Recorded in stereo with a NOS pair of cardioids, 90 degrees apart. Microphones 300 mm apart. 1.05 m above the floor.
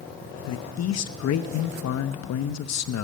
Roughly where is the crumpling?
No crumpling in this recording.